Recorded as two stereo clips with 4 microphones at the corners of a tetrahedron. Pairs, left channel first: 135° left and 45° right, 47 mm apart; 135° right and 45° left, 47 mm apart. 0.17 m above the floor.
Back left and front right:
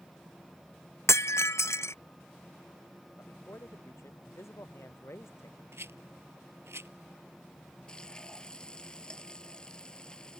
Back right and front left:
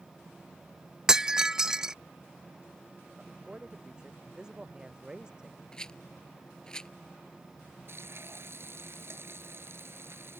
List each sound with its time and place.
1.1 s breaking glass: 120° left
3.2 s a man speaking: 115° left
5.7 s a rattle: 65° right
7.9 s frying: 65° left